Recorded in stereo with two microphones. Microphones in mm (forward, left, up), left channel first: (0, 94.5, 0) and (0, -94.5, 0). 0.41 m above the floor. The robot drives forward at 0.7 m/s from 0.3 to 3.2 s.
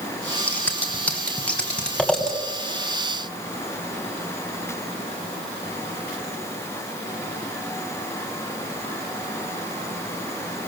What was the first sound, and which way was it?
Scissors, 5° left (ahead or behind).